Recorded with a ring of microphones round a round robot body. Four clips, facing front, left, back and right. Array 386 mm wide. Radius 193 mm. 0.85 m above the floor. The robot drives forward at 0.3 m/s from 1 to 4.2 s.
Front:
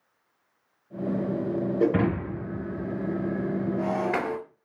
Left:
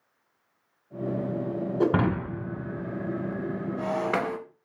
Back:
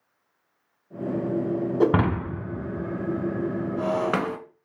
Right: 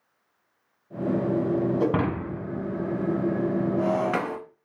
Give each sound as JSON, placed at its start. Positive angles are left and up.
{"t": 1.8, "sound": "breaking glass", "azimuth_deg": 175, "distance_m": 1.5}